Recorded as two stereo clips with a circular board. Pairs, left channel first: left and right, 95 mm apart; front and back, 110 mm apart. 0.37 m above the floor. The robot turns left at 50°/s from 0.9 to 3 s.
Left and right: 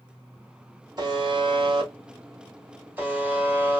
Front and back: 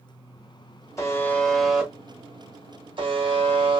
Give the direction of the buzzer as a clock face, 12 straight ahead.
2 o'clock.